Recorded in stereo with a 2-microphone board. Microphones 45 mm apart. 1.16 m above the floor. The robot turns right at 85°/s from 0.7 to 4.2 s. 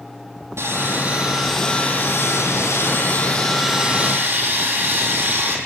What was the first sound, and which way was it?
Sawing, 75° right.